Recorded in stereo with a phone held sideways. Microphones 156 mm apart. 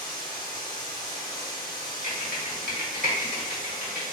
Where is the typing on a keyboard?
60° right (ahead or behind), 1.2 m.